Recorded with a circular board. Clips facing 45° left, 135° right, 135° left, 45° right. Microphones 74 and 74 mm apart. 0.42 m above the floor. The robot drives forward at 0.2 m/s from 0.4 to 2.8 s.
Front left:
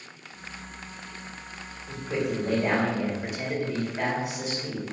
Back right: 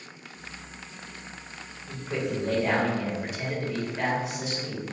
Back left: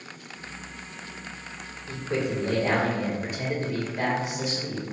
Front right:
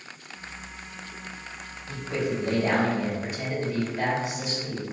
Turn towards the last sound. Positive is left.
turn(degrees=125)